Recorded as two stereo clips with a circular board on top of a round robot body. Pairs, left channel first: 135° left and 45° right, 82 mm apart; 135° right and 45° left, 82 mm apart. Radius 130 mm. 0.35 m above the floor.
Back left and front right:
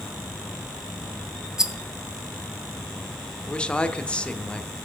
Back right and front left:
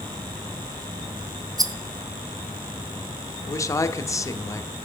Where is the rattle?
35° left, 0.8 m.